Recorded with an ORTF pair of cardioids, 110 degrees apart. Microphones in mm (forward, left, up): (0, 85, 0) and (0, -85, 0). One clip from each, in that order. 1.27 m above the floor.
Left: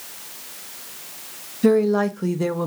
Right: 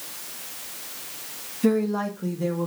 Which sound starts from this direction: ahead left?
A woman speaking, at 1.6 s.